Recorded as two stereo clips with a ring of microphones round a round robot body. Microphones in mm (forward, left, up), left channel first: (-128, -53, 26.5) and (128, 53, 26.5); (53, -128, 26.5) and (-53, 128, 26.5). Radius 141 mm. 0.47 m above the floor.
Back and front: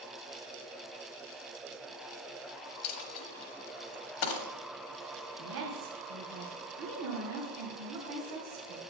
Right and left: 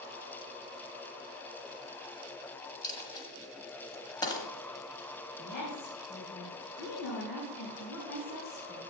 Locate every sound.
2.8 s a dropped coin: 145° right, 1.4 m
5.4 s a woman speaking: 15° right, 3.5 m